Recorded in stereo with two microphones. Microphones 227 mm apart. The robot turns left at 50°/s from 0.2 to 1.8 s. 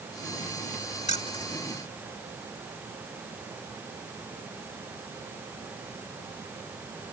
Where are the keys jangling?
30° left (ahead or behind); by 1.6 s 10° left (ahead or behind).